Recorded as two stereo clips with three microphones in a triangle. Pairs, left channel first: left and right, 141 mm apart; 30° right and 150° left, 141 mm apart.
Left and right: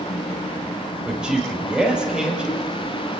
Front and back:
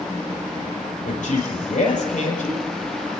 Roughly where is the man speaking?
Ahead.